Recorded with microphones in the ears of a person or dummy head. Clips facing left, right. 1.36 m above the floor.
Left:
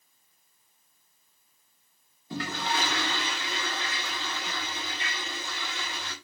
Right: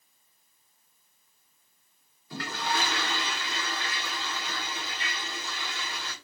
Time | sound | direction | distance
2.3 | a toilet flushing | 20° left (ahead or behind) | 4 m